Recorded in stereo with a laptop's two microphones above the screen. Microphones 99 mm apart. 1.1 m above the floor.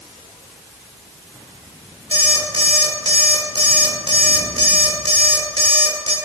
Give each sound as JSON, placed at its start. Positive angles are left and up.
{"t": 2.1, "sound": "an alarm clock", "side_deg": -75, "distance_m": 1.8}